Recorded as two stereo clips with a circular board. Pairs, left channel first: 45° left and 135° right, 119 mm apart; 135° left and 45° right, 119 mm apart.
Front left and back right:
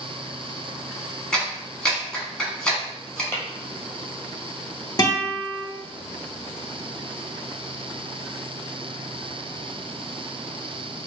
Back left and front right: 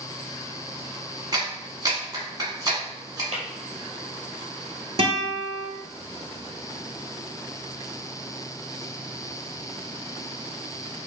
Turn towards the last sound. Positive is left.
turn(degrees=-10)